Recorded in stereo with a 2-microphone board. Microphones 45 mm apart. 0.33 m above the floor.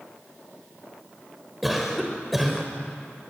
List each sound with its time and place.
1.6 s a cough: 5° right (ahead or behind), 1.1 m